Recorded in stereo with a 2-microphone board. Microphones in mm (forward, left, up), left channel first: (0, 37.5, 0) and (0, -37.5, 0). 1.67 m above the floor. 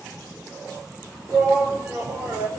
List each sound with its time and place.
1.3 s a shout: 20° right (ahead or behind), 4.5 m